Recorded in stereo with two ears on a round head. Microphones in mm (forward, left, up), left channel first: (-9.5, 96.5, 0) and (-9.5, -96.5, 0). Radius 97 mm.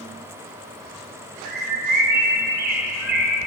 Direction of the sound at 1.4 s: 45° right (ahead or behind).